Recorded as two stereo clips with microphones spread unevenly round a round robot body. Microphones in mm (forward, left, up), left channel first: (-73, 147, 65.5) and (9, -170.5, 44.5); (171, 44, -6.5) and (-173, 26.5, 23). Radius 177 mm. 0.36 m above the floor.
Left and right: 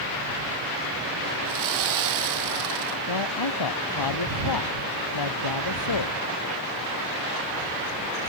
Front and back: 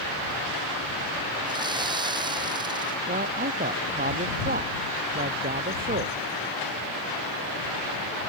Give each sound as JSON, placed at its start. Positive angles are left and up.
{"t": 1.4, "sound": "sawing", "azimuth_deg": -100}
{"t": 3.1, "sound": "a man speaking", "azimuth_deg": 120}